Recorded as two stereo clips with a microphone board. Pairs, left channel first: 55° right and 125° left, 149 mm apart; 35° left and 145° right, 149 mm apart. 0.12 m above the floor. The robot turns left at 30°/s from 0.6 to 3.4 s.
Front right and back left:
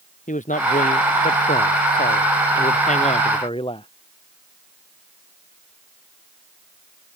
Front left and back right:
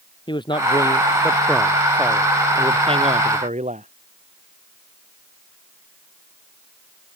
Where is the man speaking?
25° right; by 3.9 s 110° right.